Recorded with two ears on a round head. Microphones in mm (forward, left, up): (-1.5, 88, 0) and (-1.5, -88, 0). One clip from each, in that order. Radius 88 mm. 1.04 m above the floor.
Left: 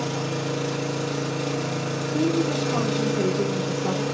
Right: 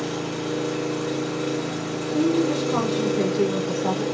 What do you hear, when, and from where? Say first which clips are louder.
0.0 s an engine running: even; 35° left (ahead or behind), 0.9 m
2.1 s a woman speaking: right 2 dB; 10° right (ahead or behind), 0.6 m